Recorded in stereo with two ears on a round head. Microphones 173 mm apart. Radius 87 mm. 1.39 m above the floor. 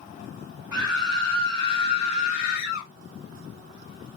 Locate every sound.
0.7 s a scream: 10° right (ahead or behind), 2.0 m; by 2.9 s 65° left (ahead or behind), 2 m